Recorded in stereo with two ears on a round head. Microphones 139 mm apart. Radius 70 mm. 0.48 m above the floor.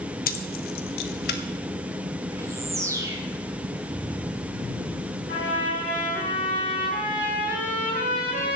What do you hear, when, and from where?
0.3 s keys jangling: 60° left (ahead or behind), 1.2 m; by 1.4 s 70° left (ahead or behind), 1.7 m
2.3 s a bird: 20° right (ahead or behind), 2.0 m
5.3 s a trumpet: 55° left (ahead or behind), 9 m